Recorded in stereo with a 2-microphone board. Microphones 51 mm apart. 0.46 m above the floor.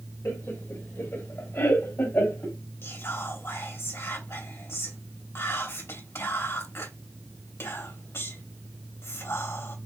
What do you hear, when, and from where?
0.2 s laughter: 55° left (ahead or behind), 1.6 m; by 2.6 s 50° left (ahead or behind), 2.5 m
2.8 s whispering: 55° left (ahead or behind), 2 m